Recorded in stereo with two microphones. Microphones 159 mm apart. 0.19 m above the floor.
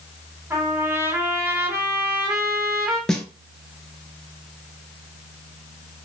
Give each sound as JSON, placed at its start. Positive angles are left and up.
{"t": 0.5, "sound": "a trumpet", "side_deg": -15, "distance_m": 1.2}
{"t": 3.1, "sound": "a snare drum", "side_deg": 0, "distance_m": 0.6}